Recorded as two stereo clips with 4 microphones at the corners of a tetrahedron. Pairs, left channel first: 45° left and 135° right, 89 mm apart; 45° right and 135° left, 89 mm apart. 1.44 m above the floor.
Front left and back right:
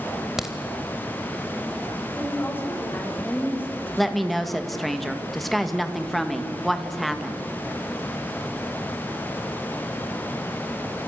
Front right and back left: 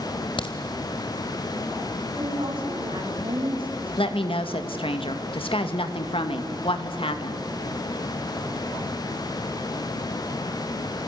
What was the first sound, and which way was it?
A crack, 50° right.